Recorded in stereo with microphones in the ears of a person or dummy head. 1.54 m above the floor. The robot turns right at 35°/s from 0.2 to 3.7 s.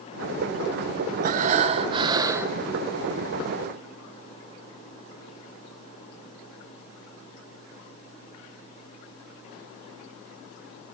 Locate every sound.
1.2 s breathing: 60° right, 0.8 m; by 2.6 s 15° right, 0.8 m